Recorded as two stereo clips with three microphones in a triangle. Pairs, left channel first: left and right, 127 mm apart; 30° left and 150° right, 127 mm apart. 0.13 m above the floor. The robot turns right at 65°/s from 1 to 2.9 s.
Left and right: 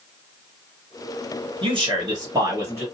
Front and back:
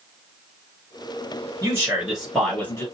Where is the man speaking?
100° right, 1.8 m; by 2.9 s 20° right, 1.8 m.